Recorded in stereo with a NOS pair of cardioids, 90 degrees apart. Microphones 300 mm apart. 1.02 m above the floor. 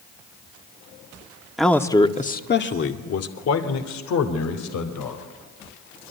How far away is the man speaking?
About 1.8 m.